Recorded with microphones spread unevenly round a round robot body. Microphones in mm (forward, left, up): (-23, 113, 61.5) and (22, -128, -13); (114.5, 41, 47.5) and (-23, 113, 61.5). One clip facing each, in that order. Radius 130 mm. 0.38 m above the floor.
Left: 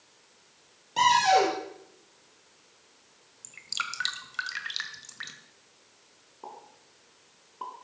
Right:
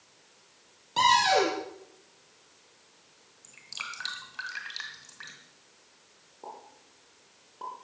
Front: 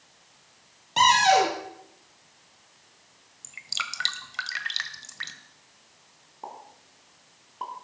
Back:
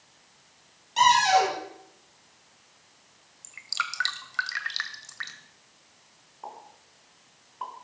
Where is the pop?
25° left, 3.5 m.